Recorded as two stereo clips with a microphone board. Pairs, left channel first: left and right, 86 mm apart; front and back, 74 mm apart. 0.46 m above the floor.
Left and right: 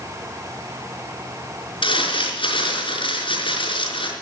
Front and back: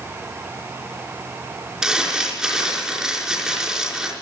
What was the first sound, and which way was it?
Crumpling, 95° left.